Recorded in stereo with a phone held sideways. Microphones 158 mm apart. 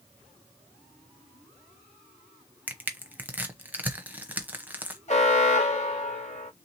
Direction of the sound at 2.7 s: 10° right (ahead or behind).